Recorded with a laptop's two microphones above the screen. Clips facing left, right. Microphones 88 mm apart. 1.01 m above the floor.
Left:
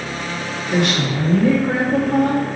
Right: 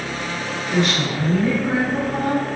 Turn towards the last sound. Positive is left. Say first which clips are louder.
# left 2 dB
turn(degrees=65)  # may be behind; listen again after turning